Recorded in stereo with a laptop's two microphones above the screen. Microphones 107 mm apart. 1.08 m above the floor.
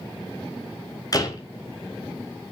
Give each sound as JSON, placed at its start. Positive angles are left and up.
{"t": 1.1, "sound": "a door slam", "side_deg": 35, "distance_m": 3.5}